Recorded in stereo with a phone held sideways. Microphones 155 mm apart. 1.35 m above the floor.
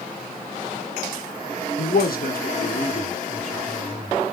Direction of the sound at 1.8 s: 80° left.